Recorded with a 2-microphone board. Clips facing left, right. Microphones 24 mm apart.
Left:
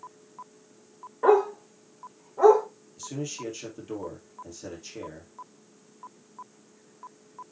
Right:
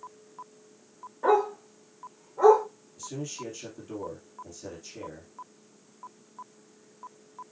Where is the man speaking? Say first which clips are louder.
Left 2 dB; 20° left (ahead or behind), 2.5 m.